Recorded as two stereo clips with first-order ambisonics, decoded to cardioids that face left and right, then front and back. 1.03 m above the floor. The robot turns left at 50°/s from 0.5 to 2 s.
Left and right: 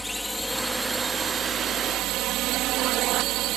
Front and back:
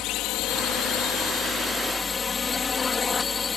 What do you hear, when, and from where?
0.0 s a drone: 5° left; by 3.6 s 70° right